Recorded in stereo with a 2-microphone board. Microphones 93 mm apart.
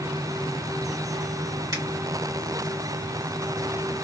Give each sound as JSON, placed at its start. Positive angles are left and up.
{"t": 1.7, "sound": "a finger snap", "side_deg": -45, "distance_m": 1.6}